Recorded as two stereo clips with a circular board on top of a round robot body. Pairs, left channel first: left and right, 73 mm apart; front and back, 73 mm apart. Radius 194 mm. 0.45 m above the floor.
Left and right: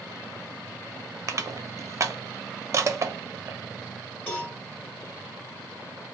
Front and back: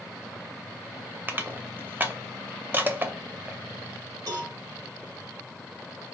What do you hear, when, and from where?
1.3 s crushing: 125° right, 0.7 m
4.3 s a cowbell: 155° left, 2 m